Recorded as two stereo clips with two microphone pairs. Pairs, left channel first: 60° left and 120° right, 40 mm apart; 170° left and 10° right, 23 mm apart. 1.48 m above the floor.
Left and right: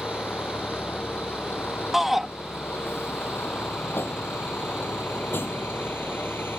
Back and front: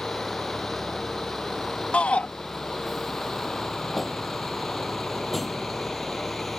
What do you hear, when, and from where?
0.0 s a vehicle: 80° left; by 6.6 s 85° left
1.9 s a shout: 160° left